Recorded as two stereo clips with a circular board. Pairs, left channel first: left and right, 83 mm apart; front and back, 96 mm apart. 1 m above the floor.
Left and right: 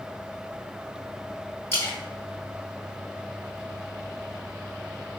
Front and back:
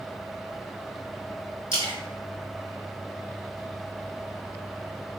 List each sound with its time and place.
1.7 s a splash: 150° left, 2.5 m